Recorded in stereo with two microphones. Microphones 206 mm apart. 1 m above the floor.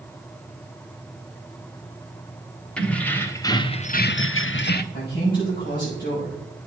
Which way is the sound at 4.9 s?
45° left (ahead or behind).